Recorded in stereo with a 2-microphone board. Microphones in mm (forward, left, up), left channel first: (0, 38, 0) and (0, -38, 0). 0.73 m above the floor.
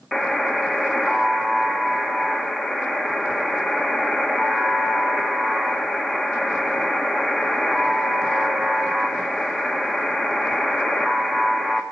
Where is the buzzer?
Centre (ahead or behind), 1.3 m.